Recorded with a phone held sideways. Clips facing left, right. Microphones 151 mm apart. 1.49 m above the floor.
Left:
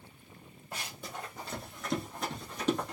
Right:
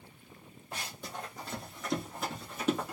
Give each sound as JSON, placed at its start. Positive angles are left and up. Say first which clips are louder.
{"t": 0.7, "sound": "running footsteps", "louder": "even", "side_deg": 0, "distance_m": 1.6}